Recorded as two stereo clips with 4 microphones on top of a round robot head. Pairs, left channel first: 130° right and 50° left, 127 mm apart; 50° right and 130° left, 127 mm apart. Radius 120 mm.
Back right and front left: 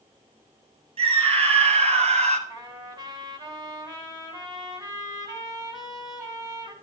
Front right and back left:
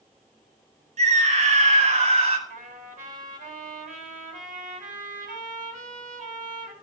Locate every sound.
1.0 s a scream: 95° left, 7.5 m; by 2.4 s 85° left, 6 m
2.5 s a trumpet: 110° left, 9 m